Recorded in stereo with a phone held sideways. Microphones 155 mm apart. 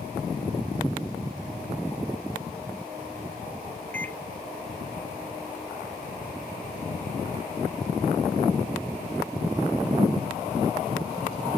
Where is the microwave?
10° left (ahead or behind), 0.8 m.